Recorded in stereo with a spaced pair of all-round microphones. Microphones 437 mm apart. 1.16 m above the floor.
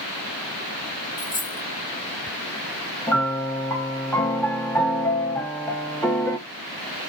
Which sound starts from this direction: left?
A dropped coin, at 1.2 s.